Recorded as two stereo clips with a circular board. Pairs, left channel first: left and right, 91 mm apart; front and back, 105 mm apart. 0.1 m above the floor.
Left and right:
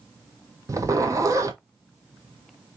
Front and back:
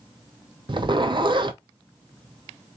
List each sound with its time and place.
0.7 s a zipper: 140° right, 0.5 m